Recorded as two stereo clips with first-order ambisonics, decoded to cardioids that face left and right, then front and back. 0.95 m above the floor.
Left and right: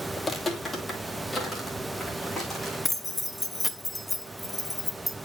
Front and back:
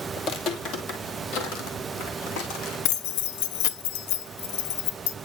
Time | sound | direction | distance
0.2 | footsteps | 35° left | 1.1 m
2.9 | keys jangling | 10° left | 0.6 m